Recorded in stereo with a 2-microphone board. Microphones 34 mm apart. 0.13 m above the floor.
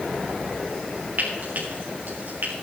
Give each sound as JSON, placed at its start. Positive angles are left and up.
{"t": 1.2, "sound": "frying", "side_deg": -60, "distance_m": 4.5}